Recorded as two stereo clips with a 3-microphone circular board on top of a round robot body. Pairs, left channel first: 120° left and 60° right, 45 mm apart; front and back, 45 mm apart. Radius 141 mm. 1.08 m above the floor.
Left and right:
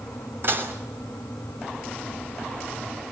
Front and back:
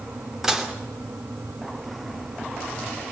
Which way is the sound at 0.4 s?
100° right.